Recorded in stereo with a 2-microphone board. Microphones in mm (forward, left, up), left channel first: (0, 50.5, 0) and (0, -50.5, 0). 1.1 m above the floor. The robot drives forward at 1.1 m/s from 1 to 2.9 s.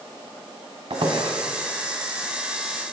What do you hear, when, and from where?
0.9 s a squeak: 60° right (ahead or behind), 1.7 m